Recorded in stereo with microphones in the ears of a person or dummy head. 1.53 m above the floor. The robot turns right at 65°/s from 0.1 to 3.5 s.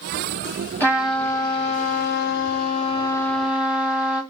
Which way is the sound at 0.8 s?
10° left.